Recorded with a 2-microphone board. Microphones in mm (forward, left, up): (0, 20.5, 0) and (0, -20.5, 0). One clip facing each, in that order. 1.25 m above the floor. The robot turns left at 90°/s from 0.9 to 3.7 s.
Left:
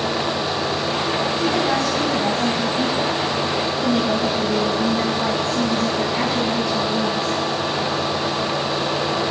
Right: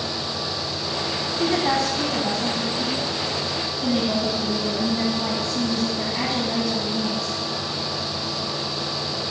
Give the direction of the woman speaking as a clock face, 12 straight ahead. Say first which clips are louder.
Right 2 dB; 4 o'clock.